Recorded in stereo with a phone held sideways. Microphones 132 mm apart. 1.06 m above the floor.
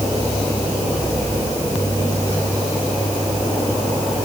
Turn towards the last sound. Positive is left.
No sound to turn to.